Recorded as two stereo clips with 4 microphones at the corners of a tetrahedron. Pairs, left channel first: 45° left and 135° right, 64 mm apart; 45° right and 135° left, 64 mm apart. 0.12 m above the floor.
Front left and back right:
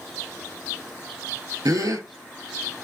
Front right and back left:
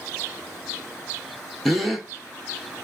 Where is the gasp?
135° right, 0.6 m.